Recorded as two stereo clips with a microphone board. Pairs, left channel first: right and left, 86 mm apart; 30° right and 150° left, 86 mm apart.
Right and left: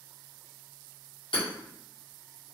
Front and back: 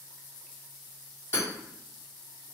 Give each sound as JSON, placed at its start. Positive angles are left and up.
{"t": 1.3, "sound": "hammering", "azimuth_deg": -85, "distance_m": 1.5}